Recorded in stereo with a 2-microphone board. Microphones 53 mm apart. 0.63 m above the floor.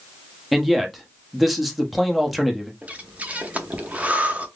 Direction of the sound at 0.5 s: Centre (ahead or behind).